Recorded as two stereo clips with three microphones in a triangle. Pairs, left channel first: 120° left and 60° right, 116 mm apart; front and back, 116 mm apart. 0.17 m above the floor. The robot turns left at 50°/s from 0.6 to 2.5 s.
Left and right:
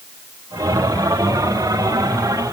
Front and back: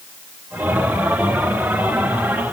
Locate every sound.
Only background noise.